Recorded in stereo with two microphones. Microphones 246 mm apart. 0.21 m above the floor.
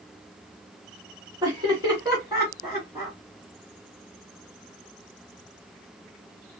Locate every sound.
1.4 s laughter: 20° right (ahead or behind), 1.7 m; by 3.1 s 15° right (ahead or behind), 3 m